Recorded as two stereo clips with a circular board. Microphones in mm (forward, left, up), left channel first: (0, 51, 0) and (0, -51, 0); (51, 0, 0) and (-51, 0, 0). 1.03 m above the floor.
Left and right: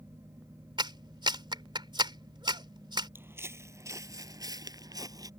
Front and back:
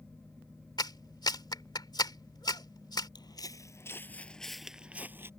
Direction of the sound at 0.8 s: 50° right.